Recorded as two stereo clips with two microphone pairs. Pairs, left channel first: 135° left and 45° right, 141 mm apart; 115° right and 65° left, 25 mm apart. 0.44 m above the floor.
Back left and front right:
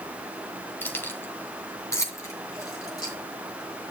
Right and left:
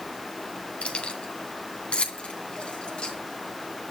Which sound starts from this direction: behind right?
Keys jangling, at 0.8 s.